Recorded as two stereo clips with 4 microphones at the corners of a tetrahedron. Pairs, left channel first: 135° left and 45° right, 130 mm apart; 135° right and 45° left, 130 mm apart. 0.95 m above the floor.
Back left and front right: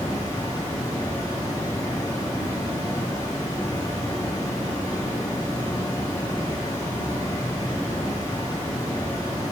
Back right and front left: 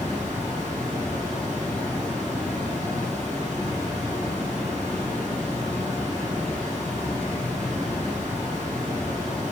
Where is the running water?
70° left, 1.1 m.